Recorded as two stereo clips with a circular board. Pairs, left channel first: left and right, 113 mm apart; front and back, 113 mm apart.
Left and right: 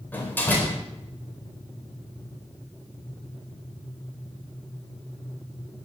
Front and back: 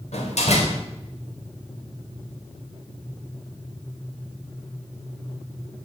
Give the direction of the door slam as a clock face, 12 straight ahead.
11 o'clock.